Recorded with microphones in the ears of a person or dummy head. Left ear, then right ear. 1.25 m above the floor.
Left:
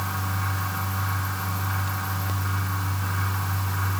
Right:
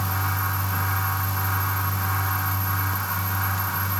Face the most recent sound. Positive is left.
No sound to turn to.